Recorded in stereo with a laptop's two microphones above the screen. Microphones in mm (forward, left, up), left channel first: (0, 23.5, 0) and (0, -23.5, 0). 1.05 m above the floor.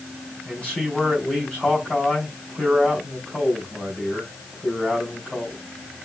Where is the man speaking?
20° left (ahead or behind), 3 m.